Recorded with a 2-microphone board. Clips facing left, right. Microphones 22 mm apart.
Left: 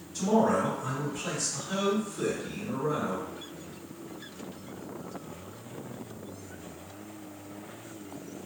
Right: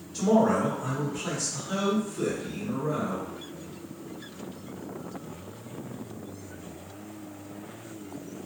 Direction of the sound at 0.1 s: 55° right (ahead or behind).